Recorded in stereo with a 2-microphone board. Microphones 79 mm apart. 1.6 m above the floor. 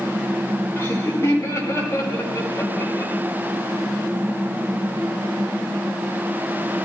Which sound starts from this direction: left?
Laughter, at 0.8 s.